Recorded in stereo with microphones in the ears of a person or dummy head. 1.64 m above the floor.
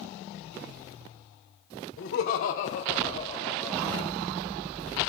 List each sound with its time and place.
2.0 s laughter: 55° left (ahead or behind), 1.2 m; by 4.1 s 5° right (ahead or behind), 0.8 m